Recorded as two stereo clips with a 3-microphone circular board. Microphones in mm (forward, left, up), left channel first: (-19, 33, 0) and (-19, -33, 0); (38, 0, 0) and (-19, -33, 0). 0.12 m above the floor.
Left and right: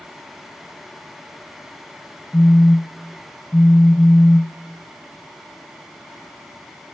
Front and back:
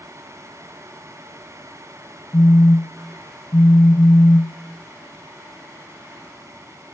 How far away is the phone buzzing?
About 0.5 m.